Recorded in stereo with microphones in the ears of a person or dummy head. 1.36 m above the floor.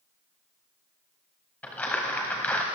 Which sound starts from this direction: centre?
Crumpling, at 1.6 s.